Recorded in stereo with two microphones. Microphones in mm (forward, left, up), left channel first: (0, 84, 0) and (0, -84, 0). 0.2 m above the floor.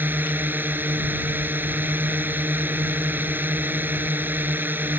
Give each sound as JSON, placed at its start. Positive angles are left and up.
{"t": 0.0, "sound": "a drone", "side_deg": -10}